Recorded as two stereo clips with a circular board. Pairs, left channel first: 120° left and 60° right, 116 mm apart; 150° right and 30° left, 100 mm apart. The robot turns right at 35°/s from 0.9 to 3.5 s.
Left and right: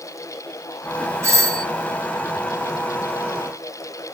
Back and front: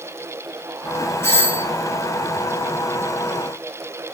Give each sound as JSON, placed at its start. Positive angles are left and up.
{"t": 1.2, "sound": "a doorbell", "azimuth_deg": -105, "distance_m": 2.5}